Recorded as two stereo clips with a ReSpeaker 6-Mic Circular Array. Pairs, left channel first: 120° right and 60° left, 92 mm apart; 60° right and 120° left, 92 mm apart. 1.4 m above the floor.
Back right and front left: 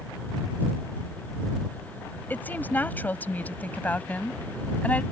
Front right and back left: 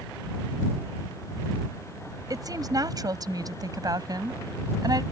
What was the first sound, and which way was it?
A woman speaking, 170° left.